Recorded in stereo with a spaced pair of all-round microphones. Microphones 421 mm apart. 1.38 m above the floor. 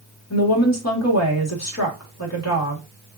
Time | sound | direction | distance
0.3 | a woman speaking | 40° left (ahead or behind) | 1.5 m